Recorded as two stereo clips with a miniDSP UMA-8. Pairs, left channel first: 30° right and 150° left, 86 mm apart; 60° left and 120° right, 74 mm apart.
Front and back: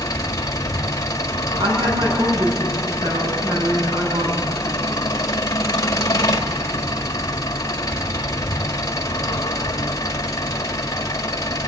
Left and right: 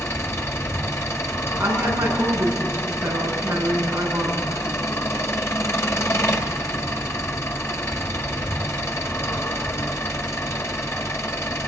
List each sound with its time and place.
0.0 s an engine running: 10° left, 1.6 m
1.6 s a woman speaking: 170° left, 5.5 m